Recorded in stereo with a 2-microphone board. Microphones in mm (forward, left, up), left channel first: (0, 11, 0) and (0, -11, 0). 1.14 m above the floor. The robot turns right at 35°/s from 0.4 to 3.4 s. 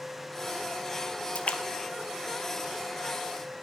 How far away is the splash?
About 0.8 m.